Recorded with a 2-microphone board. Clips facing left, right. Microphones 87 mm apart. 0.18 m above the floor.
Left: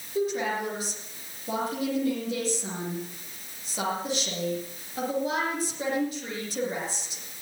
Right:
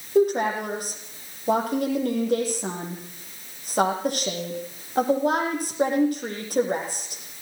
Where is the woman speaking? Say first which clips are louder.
Right 7 dB; 60° right (ahead or behind), 8.5 m.